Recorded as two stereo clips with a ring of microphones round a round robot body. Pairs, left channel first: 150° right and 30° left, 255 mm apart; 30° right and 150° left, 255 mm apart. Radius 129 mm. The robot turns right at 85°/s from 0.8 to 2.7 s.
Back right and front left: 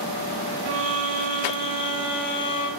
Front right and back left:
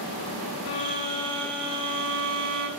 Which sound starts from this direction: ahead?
A violin, at 0.7 s.